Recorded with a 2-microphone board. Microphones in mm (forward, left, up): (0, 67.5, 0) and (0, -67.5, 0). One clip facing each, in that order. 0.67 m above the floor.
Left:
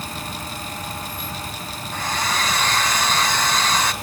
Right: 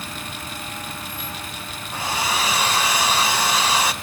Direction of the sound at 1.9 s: 10° right (ahead or behind).